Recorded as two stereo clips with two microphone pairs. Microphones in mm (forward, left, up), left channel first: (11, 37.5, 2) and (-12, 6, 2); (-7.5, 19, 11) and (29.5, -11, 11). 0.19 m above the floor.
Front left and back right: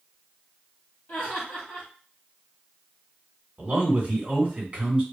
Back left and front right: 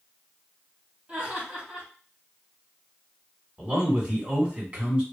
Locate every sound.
1.1 s laughter: 25° left, 2 m
3.6 s a man speaking: 90° right, 1.9 m